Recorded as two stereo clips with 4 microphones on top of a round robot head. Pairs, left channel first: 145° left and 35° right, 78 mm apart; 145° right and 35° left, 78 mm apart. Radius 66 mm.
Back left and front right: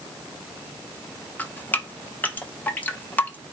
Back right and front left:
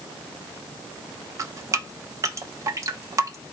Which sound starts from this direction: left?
Dripping, at 1.4 s.